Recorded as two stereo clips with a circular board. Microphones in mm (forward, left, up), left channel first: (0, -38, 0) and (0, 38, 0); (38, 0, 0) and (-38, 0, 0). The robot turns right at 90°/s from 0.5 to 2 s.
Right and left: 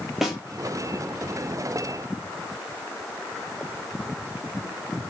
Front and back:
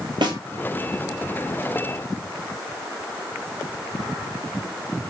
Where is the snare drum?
175° left, 1.5 m.